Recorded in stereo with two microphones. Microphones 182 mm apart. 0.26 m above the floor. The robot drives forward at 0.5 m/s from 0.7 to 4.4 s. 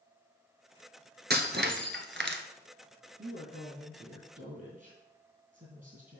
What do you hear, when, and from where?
1.3 s breaking glass: 65° right (ahead or behind), 1.3 m; by 2.4 s 80° right, 1.2 m
3.2 s a woman speaking: 45° right (ahead or behind), 2.5 m; by 6.2 s 50° right (ahead or behind), 2.5 m